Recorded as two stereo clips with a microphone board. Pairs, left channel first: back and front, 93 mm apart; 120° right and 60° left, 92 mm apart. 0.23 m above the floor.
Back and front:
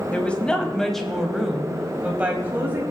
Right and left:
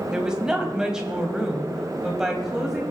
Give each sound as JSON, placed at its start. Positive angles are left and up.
{"t": 0.1, "sound": "a woman speaking", "azimuth_deg": 130, "distance_m": 1.6}